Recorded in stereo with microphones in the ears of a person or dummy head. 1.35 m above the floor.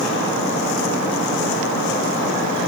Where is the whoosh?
No whoosh in this recording.